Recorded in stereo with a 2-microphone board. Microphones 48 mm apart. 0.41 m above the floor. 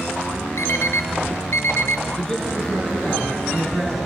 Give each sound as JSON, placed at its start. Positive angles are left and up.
{"t": 0.6, "sound": "an alarm clock", "side_deg": 70, "distance_m": 0.9}
{"t": 2.2, "sound": "a man speaking", "side_deg": 15, "distance_m": 4.5}